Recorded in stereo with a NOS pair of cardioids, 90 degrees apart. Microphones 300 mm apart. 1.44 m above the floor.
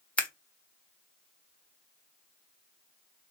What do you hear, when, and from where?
0.2 s scissors: 5° left, 1.2 m